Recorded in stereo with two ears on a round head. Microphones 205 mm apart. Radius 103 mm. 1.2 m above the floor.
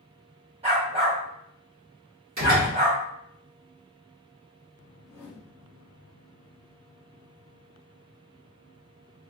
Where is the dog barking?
25° right (ahead or behind), 1.5 m.